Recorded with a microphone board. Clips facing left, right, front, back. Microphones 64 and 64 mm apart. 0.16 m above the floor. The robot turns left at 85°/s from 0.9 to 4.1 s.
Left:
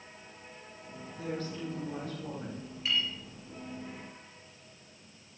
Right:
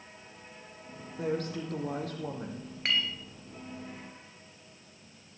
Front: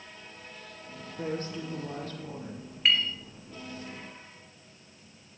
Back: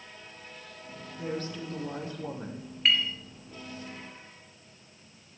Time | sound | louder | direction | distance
1.2 | a woman speaking | right 5 dB, front 1 dB | 35° right | 5 m
2.9 | a clink | right 2 dB, even | 90° right | 2.0 m